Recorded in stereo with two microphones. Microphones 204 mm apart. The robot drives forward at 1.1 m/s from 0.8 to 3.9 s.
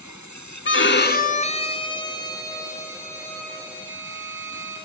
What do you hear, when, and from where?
0.7 s a violin: 70° left (ahead or behind), 0.6 m; by 4.8 s 10° left (ahead or behind), 3.5 m